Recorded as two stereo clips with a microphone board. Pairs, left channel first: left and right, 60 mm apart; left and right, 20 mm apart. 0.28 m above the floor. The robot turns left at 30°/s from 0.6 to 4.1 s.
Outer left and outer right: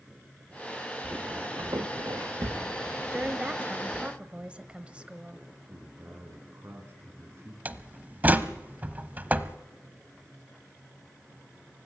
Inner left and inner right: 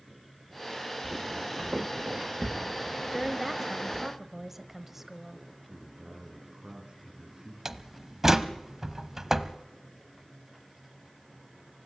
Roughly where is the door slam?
Right.